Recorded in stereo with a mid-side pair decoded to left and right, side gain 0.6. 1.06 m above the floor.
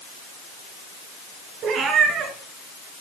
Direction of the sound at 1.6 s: 60° right.